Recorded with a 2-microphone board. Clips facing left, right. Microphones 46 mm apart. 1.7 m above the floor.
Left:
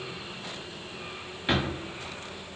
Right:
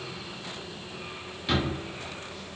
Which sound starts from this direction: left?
A drawer, at 1.5 s.